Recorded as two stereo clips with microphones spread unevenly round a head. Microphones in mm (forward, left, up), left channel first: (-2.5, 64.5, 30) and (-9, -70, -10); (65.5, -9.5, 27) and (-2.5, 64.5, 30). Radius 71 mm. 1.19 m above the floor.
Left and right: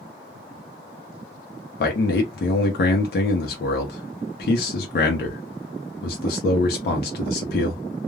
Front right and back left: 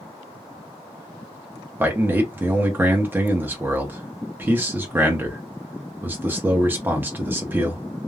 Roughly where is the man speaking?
Ahead left.